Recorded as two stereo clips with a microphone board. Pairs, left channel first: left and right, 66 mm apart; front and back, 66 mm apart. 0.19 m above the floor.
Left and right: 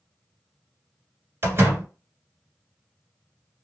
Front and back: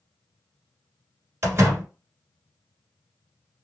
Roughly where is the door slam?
Behind right.